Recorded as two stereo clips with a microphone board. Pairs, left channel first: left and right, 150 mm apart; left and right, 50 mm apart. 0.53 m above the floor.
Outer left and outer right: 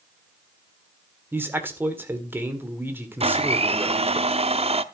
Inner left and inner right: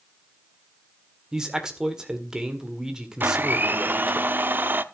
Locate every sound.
1.3 s a man speaking: 15° right (ahead or behind), 1.8 m
3.2 s a blender: 40° right (ahead or behind), 0.6 m